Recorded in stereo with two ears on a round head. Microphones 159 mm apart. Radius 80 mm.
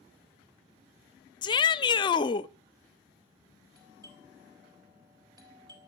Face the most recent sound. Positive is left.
turn(degrees=-25)  # may be behind; listen again after turning